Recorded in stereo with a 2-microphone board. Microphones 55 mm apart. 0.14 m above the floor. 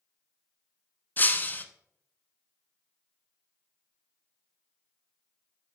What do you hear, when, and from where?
1.2 s breaking glass: 30° left (ahead or behind), 0.6 m